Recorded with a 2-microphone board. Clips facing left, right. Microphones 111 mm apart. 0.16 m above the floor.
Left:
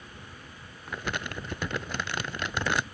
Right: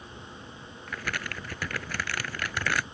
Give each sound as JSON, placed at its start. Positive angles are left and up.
{"t": 0.9, "sound": "crumpling", "side_deg": 20}